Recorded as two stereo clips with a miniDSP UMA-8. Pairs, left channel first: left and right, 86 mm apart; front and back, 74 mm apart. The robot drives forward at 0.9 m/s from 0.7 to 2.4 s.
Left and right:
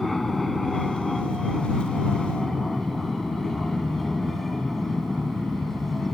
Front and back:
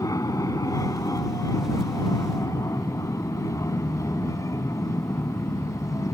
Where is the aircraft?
5° left.